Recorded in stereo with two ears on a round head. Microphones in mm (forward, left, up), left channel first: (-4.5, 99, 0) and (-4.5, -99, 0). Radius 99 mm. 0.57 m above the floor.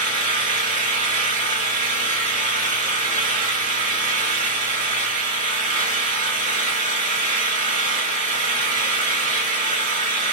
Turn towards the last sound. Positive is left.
turn(degrees=-35)  # may be behind; listen again after turning